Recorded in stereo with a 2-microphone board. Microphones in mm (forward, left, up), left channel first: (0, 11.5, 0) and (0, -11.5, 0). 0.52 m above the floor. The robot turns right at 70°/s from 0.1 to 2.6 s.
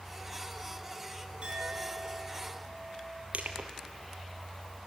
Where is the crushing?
80° right, 2 m.